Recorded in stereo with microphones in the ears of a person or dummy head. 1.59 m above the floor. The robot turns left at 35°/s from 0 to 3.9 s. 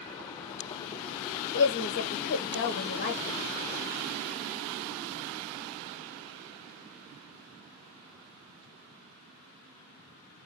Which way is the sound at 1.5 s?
95° left.